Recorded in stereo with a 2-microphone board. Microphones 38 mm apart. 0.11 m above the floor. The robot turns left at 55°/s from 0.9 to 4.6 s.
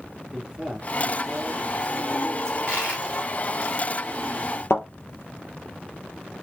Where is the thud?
75° left (ahead or behind), 2.5 m.